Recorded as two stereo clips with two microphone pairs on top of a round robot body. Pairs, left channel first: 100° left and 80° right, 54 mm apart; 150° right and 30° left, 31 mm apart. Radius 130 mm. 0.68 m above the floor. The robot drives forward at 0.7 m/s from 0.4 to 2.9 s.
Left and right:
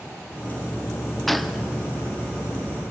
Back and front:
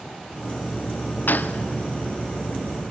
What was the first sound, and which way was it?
A gunshot, 170° right.